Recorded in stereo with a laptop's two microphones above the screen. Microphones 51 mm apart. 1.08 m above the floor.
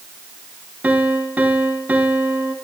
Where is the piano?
30° right (ahead or behind), 3 m.